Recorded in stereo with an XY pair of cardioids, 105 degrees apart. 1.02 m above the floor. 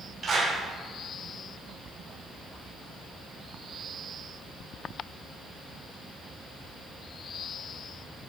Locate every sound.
0.2 s a clap: 40° right, 5 m